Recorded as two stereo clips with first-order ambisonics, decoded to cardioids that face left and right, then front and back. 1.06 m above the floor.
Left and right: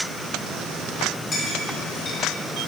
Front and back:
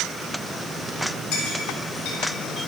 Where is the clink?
30° left, 2.5 m.